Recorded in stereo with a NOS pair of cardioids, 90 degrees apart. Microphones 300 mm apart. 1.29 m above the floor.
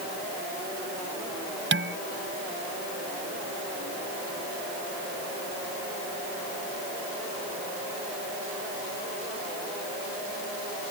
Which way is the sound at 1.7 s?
40° right.